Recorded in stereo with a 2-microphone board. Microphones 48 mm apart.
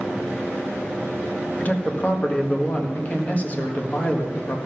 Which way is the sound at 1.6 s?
35° left (ahead or behind).